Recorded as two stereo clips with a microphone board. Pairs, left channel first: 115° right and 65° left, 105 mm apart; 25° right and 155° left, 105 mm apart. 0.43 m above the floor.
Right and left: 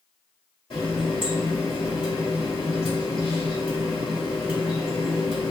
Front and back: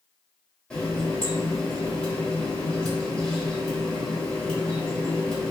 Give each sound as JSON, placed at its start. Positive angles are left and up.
{"t": 0.7, "sound": "a running tap", "azimuth_deg": -105, "distance_m": 1.2}